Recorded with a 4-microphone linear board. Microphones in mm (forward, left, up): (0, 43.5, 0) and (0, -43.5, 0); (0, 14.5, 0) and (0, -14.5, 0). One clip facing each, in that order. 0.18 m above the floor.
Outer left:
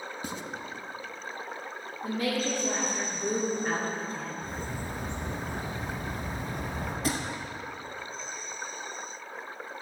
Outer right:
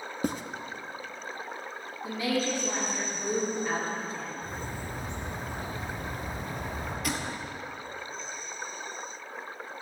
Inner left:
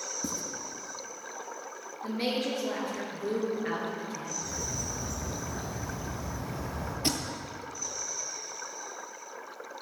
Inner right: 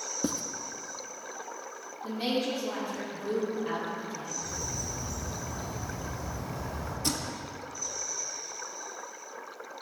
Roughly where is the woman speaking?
Left.